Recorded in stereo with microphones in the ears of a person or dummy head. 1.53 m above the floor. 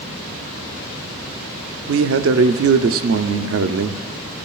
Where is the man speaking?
65° right (ahead or behind), 0.5 m.